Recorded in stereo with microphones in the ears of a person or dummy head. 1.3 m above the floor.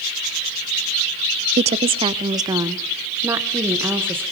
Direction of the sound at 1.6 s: 35° right (ahead or behind).